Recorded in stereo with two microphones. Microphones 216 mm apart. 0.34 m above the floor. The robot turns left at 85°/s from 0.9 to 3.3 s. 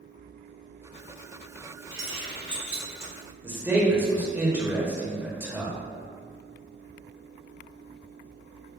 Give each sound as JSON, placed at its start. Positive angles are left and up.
{"t": 1.9, "sound": "keys jangling", "side_deg": -25, "distance_m": 1.8}
{"t": 3.4, "sound": "a man speaking", "side_deg": -10, "distance_m": 0.8}